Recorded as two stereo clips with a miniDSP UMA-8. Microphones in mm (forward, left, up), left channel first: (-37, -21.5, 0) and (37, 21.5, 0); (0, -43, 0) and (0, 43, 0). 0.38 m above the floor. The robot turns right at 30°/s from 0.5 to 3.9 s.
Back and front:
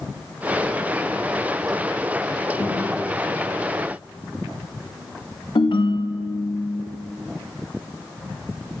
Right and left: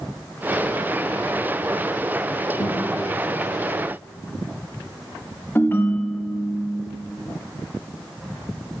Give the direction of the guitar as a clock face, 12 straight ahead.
3 o'clock.